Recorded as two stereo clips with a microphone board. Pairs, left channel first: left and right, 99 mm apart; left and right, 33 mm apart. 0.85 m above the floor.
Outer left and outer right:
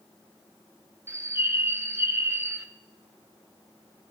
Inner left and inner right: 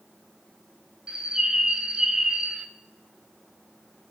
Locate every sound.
1.1 s a bird: 25° right (ahead or behind), 0.5 m